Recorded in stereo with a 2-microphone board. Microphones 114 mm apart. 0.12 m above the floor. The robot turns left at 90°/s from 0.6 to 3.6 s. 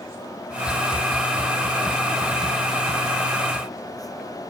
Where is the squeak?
No squeak in this recording.